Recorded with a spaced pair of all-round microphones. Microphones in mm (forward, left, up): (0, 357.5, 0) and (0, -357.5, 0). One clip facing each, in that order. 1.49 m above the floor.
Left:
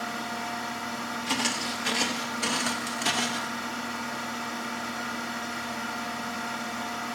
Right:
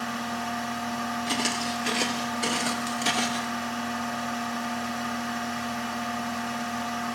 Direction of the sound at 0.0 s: 25° right (ahead or behind).